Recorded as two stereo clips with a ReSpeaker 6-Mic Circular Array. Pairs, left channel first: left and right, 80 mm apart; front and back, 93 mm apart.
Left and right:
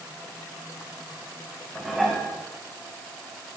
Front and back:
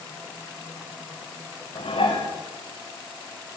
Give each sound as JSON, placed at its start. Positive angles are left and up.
{"t": 1.8, "sound": "dishes clattering", "azimuth_deg": 0, "distance_m": 7.5}